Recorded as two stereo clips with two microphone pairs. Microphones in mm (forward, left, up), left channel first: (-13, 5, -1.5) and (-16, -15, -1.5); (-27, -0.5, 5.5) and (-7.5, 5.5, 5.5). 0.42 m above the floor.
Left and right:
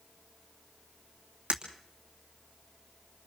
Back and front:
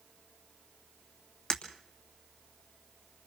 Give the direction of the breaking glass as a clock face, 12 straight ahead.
4 o'clock.